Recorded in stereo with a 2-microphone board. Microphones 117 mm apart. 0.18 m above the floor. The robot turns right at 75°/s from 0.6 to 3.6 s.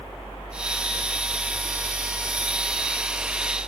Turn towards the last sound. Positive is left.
No sound to turn to.